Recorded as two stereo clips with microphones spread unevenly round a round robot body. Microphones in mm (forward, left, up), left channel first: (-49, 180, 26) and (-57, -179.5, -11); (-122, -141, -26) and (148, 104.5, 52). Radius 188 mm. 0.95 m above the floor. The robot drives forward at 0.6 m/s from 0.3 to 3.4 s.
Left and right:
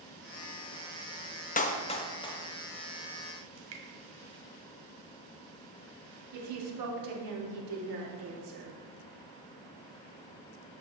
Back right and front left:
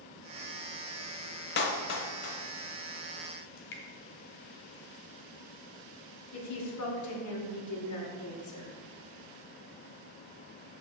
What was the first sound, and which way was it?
A clap, 160° left.